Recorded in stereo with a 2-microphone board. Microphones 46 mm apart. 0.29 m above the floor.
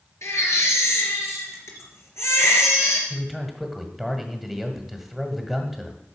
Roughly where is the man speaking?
Centre.